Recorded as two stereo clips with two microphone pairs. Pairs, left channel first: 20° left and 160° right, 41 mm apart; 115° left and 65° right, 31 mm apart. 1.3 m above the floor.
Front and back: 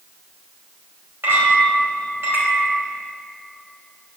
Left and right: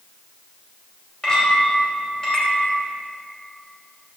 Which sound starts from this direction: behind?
A clink, at 1.2 s.